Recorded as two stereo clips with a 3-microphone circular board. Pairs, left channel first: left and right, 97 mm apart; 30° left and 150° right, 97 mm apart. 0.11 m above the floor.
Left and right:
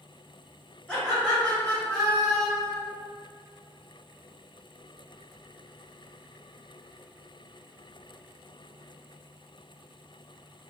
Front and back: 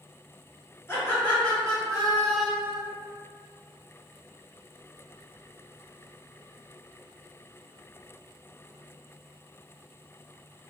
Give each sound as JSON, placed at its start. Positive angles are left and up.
{"t": 0.9, "sound": "laughter", "azimuth_deg": 30, "distance_m": 1.3}